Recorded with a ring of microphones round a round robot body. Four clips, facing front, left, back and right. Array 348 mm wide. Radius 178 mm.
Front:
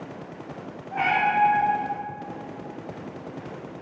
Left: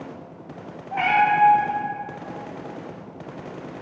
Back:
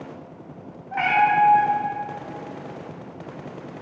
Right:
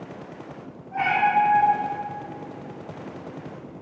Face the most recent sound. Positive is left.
turn(degrees=110)